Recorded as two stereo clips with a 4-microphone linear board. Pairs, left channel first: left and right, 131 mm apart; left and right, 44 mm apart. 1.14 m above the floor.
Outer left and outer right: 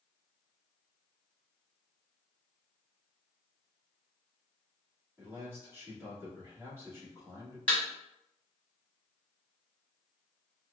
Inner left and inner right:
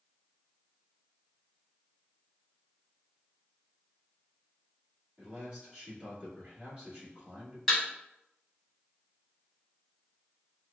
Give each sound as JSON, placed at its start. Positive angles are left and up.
{"t": 5.2, "sound": "a man speaking", "side_deg": -20, "distance_m": 2.0}
{"t": 7.7, "sound": "a thud", "side_deg": 10, "distance_m": 1.7}